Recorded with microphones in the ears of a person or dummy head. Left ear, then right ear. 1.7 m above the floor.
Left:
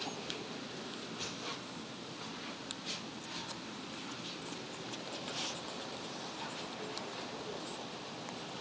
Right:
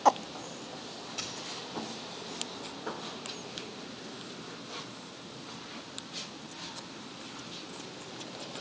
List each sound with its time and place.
1.2 s a dropped coin: 40° right (ahead or behind), 1.5 m